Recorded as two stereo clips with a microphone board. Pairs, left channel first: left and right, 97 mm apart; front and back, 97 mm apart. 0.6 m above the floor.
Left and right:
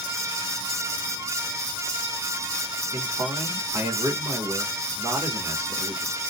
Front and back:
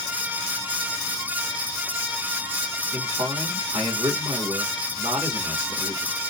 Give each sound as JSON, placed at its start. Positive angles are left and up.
{"t": 2.9, "sound": "a man speaking", "azimuth_deg": -140, "distance_m": 1.4}